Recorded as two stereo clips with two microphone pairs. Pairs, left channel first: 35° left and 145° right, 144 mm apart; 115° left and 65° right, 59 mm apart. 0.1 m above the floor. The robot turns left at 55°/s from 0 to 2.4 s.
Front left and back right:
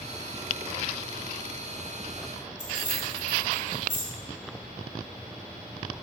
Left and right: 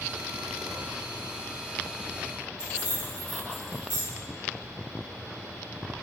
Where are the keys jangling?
110° right, 0.9 m.